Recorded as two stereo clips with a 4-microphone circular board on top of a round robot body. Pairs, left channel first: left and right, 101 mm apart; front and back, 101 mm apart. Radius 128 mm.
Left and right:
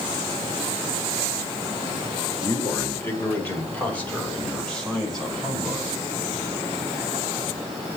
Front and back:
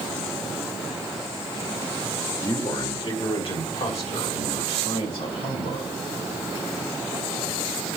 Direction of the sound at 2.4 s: 50° left.